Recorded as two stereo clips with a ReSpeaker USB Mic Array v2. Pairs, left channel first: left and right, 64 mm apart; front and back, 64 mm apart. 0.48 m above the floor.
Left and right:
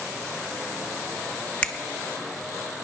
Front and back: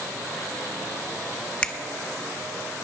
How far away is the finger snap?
About 0.5 m.